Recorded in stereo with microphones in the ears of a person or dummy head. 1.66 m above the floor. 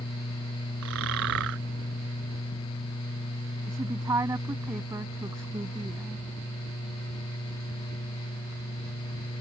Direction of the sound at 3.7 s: 15° right (ahead or behind).